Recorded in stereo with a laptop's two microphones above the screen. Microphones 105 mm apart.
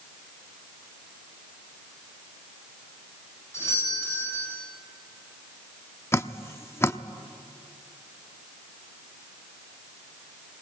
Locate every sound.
3.5 s a doorbell: 30° left (ahead or behind), 7.5 m
6.1 s dripping: 25° left (ahead or behind), 0.6 m